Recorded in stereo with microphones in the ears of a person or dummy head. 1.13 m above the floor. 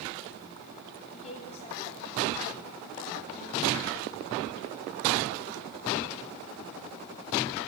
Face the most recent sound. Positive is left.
turn(degrees=40)  # may be behind; listen again after turning